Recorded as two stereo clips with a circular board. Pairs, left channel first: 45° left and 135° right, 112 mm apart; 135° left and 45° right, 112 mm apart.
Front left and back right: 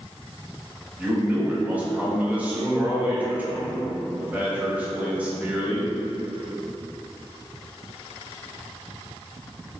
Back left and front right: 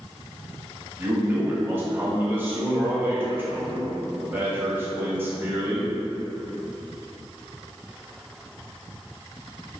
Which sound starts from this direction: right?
A man speaking, at 1.0 s.